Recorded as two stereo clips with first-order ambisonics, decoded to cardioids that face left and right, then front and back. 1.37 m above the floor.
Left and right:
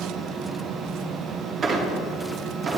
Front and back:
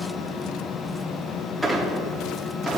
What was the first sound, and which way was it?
A squeak, 100° right.